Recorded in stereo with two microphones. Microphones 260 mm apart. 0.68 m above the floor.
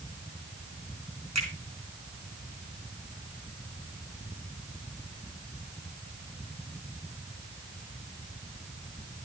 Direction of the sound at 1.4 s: 80° right.